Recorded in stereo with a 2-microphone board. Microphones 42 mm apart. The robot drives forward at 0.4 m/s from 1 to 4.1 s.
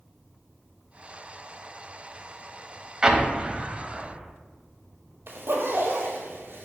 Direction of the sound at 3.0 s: 20° right (ahead or behind).